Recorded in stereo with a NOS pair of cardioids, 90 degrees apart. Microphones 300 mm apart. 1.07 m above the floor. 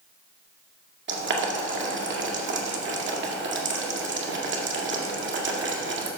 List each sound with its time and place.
1.1 s boiling: 40° right, 1.9 m